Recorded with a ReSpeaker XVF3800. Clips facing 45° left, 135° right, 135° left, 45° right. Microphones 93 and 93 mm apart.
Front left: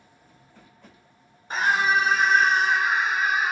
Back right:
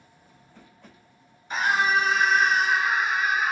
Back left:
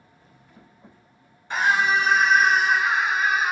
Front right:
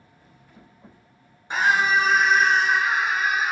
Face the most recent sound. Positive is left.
turn(degrees=105)